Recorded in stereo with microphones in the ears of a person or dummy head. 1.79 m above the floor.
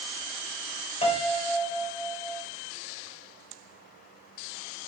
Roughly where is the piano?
Left.